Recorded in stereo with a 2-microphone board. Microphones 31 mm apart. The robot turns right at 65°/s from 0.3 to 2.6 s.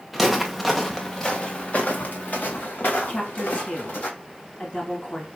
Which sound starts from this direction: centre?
Footsteps, at 0.1 s.